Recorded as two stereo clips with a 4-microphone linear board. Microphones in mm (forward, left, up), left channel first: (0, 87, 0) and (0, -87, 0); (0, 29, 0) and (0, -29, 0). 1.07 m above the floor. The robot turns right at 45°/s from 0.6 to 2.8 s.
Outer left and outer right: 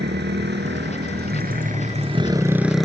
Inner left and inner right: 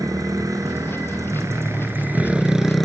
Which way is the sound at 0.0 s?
100° right.